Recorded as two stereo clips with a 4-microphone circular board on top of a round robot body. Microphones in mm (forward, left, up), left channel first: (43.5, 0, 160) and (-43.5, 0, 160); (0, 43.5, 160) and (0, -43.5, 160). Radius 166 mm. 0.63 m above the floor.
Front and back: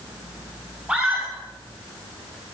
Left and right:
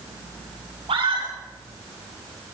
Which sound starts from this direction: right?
A scream, at 0.9 s.